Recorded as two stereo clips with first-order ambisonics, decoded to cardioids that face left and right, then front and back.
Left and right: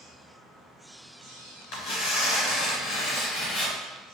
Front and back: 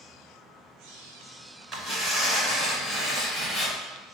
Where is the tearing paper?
100° left, 1.8 m.